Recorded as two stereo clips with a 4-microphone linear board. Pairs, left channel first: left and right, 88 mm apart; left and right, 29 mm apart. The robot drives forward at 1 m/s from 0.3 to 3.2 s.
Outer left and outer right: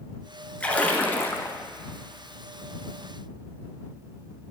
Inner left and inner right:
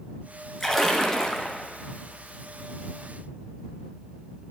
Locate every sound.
0.6 s a splash: 15° left (ahead or behind), 1.4 m; by 1.6 s 40° left (ahead or behind), 0.5 m